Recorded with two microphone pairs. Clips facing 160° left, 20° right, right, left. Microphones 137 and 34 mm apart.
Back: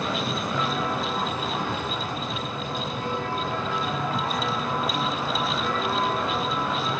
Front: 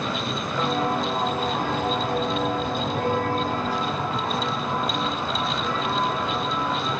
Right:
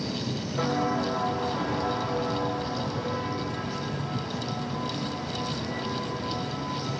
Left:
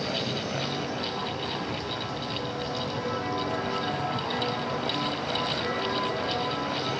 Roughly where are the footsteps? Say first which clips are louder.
Front 6 dB, right 4 dB; right.